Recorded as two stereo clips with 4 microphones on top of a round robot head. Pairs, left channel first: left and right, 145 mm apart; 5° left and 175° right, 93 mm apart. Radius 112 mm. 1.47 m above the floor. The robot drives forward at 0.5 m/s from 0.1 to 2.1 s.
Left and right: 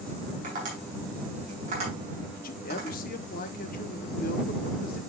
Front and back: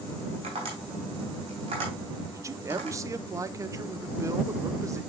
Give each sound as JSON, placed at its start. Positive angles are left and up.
{"t": 0.4, "sound": "tapping", "azimuth_deg": -135, "distance_m": 5.5}
{"t": 2.3, "sound": "a man speaking", "azimuth_deg": 125, "distance_m": 0.9}